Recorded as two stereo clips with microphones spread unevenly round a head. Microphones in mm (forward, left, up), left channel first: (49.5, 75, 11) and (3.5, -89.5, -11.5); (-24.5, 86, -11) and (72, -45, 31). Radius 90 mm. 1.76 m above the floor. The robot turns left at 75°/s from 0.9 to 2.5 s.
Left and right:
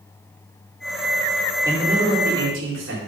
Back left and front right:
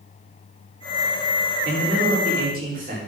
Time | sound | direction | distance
1.6 | a man speaking | 30° right | 4 m